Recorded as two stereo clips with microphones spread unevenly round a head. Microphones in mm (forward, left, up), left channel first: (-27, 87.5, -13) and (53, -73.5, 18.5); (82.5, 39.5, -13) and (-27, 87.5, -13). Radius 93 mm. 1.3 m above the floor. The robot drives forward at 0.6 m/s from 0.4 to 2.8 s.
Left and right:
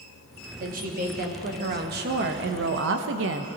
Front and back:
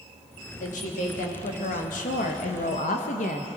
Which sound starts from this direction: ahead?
A woman speaking, at 0.6 s.